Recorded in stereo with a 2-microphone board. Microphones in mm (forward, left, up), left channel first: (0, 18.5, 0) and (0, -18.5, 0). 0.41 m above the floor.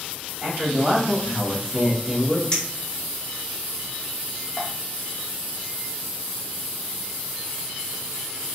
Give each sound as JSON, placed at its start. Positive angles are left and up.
{"t": 0.4, "sound": "a man speaking", "side_deg": -50, "distance_m": 2.0}
{"t": 2.5, "sound": "a clink", "side_deg": 25, "distance_m": 1.3}